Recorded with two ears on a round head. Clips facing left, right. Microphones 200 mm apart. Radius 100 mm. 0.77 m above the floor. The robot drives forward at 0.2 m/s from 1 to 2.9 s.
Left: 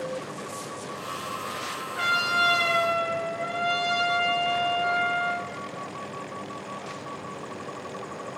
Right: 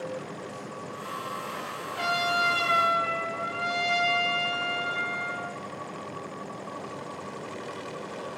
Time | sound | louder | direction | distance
1.9 | a trumpet | right 3 dB | 10° right (ahead or behind) | 1.2 m